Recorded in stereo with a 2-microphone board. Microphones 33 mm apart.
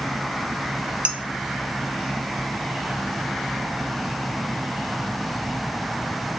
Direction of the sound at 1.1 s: 40° right (ahead or behind).